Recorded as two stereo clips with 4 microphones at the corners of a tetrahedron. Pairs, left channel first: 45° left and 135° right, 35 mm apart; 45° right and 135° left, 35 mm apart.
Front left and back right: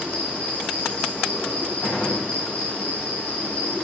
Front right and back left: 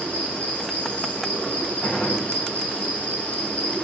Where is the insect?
5° right, 5.5 m.